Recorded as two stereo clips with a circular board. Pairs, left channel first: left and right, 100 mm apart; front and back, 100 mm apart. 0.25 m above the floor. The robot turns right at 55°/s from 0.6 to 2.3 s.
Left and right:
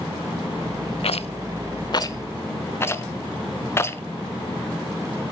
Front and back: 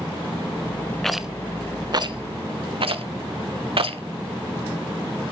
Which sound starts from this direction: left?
A rattle, at 1.0 s.